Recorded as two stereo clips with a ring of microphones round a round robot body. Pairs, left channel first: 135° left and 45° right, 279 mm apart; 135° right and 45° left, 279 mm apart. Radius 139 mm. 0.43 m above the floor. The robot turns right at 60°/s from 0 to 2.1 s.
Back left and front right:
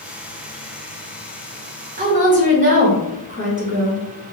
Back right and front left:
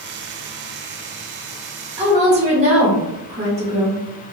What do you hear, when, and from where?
2.0 s a woman speaking: 10° right, 1.1 m; by 4.0 s 5° right, 1.1 m